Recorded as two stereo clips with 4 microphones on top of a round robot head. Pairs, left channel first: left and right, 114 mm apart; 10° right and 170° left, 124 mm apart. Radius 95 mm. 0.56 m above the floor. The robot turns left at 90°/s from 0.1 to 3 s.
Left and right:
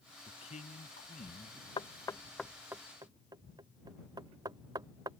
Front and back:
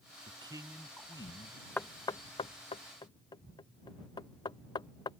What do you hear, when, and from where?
0.3 s a man speaking: 135° left; by 1.7 s 10° left
1.8 s knocking: 65° left; by 5.1 s 50° right